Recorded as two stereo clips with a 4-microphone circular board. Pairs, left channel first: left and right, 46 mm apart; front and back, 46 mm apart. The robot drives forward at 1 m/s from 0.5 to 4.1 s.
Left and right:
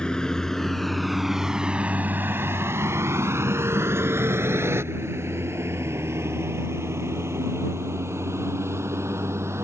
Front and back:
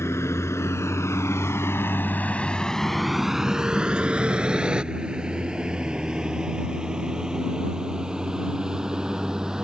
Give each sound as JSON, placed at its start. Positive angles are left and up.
{"t": 0.0, "sound": "a vehicle", "azimuth_deg": 15}